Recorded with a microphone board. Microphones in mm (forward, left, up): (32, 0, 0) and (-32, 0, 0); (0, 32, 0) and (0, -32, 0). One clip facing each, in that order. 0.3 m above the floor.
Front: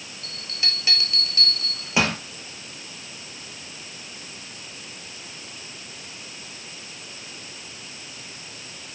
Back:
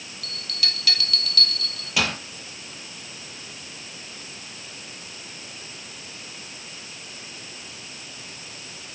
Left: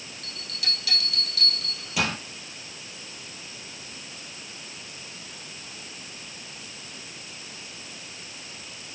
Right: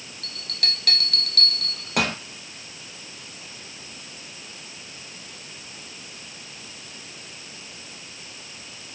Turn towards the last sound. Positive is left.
turn(degrees=-65)